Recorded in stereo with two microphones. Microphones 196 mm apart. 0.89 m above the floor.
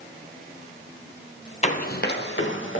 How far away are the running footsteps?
About 1.0 m.